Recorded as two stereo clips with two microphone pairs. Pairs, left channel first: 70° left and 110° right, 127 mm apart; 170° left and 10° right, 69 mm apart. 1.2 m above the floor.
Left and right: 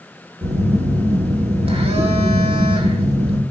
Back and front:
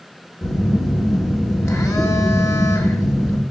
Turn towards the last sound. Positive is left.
turn(degrees=-150)